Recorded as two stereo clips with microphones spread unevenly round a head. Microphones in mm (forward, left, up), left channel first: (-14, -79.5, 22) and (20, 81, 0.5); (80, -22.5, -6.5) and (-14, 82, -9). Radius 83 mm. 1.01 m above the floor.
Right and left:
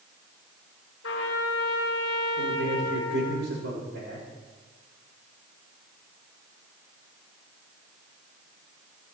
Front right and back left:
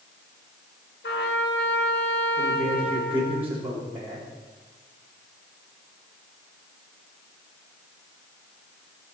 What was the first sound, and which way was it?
A trumpet, 85° right.